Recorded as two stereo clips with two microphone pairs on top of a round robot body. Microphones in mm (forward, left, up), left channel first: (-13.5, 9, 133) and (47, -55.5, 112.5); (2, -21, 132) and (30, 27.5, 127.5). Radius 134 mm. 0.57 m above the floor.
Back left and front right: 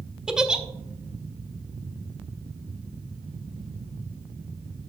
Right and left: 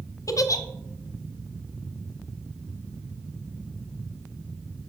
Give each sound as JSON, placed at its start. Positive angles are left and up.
{"t": 0.3, "sound": "a giggle", "azimuth_deg": -125, "distance_m": 0.5}